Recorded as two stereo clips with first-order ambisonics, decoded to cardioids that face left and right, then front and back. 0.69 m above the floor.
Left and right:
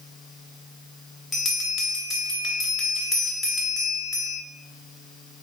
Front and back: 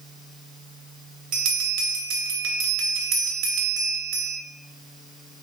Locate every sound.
1.3 s a bell: 165° left, 1.1 m